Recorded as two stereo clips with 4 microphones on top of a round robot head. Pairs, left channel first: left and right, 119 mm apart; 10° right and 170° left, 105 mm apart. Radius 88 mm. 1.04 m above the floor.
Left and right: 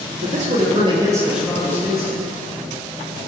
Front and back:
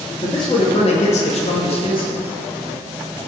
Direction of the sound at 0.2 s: 70° right.